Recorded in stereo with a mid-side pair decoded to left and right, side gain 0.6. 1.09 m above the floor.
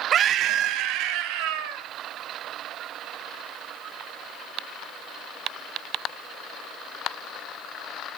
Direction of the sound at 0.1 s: 45° right.